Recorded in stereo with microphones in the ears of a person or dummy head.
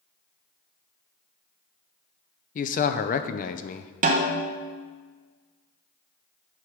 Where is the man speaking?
40° left (ahead or behind), 0.5 m.